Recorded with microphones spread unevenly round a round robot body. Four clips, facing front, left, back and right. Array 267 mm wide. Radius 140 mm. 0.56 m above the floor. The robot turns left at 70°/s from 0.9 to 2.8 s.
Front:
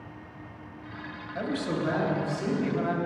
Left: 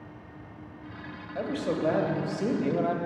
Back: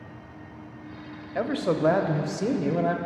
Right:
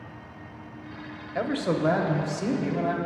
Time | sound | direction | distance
1.4 | a man speaking | 115° right | 0.9 m